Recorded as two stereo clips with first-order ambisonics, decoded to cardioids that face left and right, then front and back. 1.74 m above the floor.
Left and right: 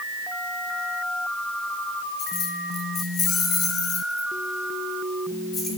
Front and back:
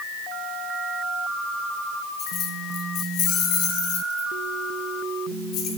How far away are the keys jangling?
About 2 m.